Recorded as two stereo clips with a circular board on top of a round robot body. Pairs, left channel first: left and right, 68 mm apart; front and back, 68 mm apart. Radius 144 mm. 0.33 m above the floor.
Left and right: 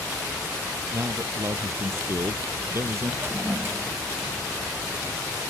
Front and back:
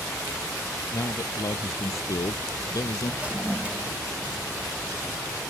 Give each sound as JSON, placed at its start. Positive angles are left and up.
{"t": 0.9, "sound": "a man speaking", "azimuth_deg": -40}
{"t": 3.2, "sound": "a toilet flushing", "azimuth_deg": -120}